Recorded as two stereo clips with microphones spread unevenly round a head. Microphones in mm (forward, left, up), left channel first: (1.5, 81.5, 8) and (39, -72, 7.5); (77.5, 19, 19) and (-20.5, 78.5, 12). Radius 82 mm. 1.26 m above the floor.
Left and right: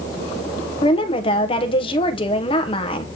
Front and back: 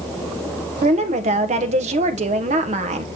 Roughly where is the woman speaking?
Behind.